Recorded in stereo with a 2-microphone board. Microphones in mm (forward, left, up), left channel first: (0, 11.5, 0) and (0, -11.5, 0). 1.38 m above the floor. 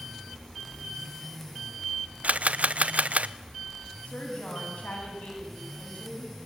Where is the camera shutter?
85° right, 0.6 m.